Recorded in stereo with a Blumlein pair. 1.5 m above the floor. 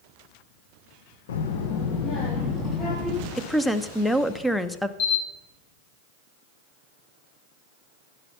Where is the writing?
No writing in this recording.